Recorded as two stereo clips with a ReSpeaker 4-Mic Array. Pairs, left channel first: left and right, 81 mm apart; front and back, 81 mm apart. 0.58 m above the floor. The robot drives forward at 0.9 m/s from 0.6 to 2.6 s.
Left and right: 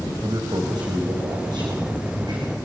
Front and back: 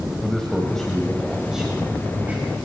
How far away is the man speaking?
About 3 m.